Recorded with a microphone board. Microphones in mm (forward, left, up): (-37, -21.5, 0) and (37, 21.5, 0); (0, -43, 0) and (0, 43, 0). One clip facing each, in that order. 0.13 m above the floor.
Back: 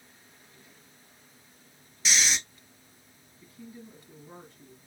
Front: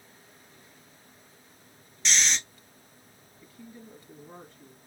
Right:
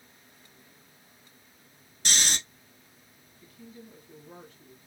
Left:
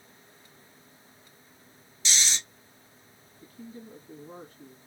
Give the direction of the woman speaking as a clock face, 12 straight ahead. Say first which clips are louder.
Back 1 dB, left 4 dB; 8 o'clock.